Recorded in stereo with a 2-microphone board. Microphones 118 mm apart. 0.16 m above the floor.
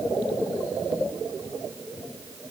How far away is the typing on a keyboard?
No typing on a keyboard in this recording.